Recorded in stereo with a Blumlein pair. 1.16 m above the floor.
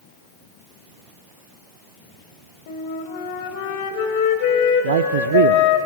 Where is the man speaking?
60° right, 0.7 m.